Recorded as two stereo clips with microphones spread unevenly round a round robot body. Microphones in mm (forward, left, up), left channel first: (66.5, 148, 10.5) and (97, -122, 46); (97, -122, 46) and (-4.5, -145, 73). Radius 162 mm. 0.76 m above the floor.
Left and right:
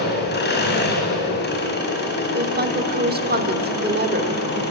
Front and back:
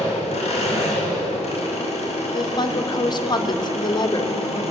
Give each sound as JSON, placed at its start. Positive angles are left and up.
{"t": 0.0, "sound": "an engine running", "azimuth_deg": 45, "distance_m": 5.5}
{"t": 2.3, "sound": "a woman speaking", "azimuth_deg": -25, "distance_m": 3.0}